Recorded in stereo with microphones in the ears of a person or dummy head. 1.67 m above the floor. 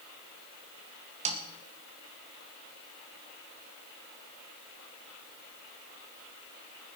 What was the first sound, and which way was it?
A snare drum, 35° right (ahead or behind).